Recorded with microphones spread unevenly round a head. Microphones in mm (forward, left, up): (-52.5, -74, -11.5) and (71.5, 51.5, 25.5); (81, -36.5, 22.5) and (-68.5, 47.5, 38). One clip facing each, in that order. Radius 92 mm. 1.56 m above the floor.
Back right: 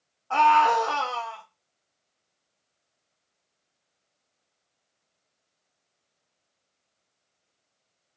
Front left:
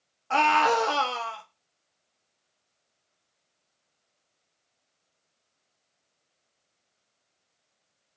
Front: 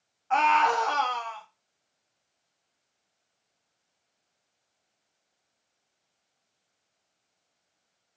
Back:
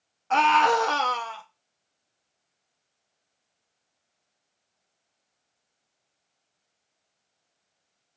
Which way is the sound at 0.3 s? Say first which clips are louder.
Back right 2 dB, back 3 dB; 105° left.